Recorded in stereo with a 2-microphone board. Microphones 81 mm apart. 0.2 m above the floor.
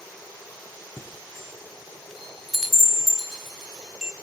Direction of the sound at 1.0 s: 5° right (ahead or behind).